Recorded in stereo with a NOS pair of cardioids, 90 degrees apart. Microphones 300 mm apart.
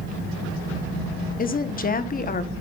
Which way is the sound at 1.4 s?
30° left.